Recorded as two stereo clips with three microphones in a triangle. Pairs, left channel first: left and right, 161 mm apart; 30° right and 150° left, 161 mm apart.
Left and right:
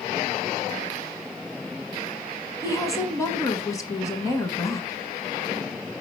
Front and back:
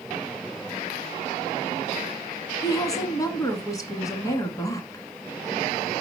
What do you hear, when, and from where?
2.6 s a woman speaking: 30° left, 1.5 m